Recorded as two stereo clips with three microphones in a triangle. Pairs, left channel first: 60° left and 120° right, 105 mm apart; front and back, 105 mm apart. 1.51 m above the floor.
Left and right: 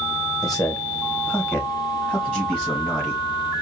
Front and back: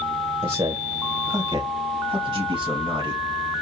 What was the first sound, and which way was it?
A man speaking, 145° left.